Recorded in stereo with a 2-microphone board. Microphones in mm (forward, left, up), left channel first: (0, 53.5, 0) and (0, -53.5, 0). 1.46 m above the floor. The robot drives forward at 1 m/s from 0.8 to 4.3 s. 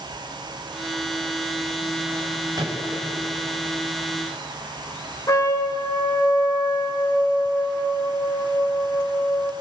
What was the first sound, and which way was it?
A microwave, 35° right (ahead or behind).